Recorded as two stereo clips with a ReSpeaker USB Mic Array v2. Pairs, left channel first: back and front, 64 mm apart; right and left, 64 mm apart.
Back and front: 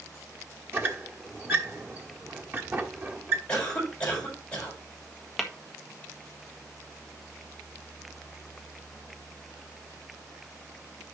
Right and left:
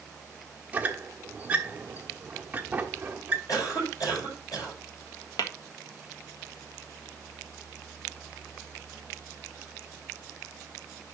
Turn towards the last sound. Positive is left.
turn(degrees=-90)